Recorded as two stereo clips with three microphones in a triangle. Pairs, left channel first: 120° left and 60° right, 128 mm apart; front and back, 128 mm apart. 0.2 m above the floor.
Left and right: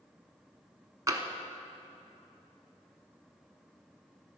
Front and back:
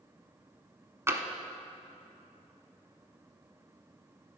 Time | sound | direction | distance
1.1 | tapping | 115° right | 0.8 m